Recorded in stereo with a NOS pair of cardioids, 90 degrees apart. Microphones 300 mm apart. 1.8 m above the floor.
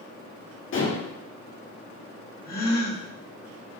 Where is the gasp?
30° left, 3 m.